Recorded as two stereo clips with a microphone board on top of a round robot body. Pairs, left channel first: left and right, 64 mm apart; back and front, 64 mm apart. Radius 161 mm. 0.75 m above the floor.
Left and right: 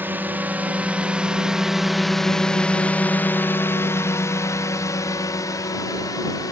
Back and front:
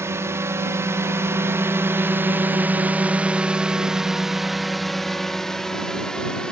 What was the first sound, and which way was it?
A drone, 35° right.